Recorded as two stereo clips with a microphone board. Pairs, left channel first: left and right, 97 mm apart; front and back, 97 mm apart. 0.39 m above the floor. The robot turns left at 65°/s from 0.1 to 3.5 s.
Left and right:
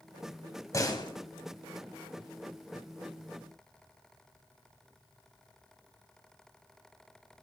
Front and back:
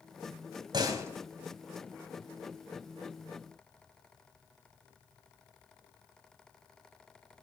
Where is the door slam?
145° left, 1.9 m; by 1.1 s 115° left, 1.9 m.